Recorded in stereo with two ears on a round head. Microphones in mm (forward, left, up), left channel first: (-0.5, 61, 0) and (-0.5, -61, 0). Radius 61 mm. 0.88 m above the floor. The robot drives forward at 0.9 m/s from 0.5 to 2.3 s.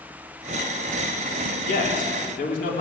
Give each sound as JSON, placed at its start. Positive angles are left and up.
{"t": 1.6, "sound": "a man speaking", "side_deg": 55, "distance_m": 2.5}